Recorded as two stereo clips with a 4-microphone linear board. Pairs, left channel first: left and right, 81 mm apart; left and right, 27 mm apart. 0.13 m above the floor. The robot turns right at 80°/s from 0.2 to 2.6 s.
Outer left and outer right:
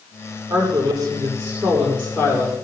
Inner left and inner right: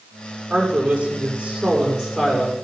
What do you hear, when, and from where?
0.5 s a woman speaking: 110° right, 6 m; by 2.5 s 55° left, 6 m